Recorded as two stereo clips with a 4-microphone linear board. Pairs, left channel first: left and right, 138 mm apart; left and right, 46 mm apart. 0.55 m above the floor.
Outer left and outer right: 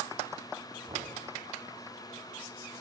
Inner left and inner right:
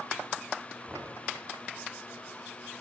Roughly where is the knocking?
Right.